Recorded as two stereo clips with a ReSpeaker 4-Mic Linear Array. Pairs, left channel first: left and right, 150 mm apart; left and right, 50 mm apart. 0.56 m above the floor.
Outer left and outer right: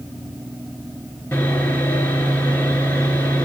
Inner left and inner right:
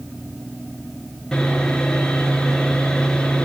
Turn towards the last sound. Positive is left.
turn(degrees=15)  # may be behind; listen again after turning